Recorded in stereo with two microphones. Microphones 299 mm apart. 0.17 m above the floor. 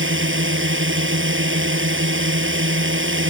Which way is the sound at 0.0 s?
40° right (ahead or behind).